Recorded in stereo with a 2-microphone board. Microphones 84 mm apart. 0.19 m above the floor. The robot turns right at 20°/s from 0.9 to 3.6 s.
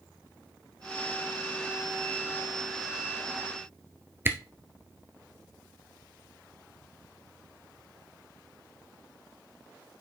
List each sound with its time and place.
4.2 s a camera shutter: 25° right (ahead or behind), 1.0 m